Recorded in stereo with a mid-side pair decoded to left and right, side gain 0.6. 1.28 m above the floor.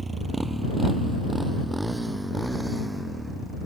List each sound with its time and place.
0.0 s a motorcycle: 20° right; by 3.7 s 5° right